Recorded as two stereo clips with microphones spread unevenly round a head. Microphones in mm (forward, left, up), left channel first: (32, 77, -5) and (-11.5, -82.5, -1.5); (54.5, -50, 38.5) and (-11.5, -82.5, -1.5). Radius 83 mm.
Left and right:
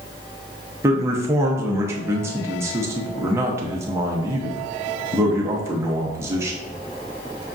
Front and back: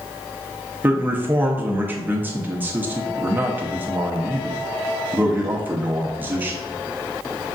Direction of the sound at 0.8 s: Straight behind.